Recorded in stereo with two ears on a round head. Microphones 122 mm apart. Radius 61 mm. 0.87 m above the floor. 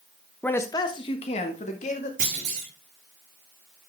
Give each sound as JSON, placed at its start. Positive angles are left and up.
{"t": 0.4, "sound": "a man speaking", "side_deg": 10, "distance_m": 0.7}
{"t": 2.2, "sound": "a clunk", "side_deg": -60, "distance_m": 4.5}